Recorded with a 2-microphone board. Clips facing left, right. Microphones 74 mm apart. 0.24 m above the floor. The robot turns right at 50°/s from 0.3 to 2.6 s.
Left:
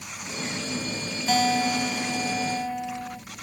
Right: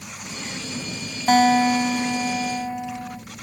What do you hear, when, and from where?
1.3 s a guitar: 95° right, 1.0 m; by 3.2 s 30° right, 1.0 m